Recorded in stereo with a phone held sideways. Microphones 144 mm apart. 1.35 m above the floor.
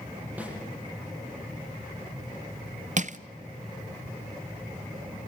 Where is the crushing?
55° right (ahead or behind), 0.7 m.